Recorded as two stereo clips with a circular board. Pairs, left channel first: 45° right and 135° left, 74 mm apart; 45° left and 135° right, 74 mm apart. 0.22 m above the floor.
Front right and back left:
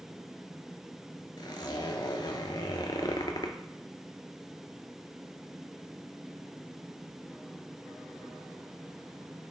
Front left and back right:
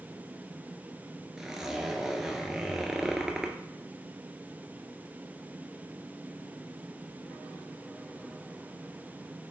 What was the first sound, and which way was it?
A zipper, 55° right.